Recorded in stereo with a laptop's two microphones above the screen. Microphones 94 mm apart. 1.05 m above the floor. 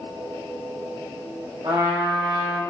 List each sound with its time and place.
1.6 s a trumpet: 40° right (ahead or behind), 2.0 m